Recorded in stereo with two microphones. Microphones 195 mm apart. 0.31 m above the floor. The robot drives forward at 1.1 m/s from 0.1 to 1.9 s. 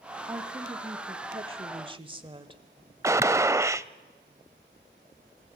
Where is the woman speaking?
15° right (ahead or behind), 1.8 m; by 2.6 s 25° right (ahead or behind), 1.2 m.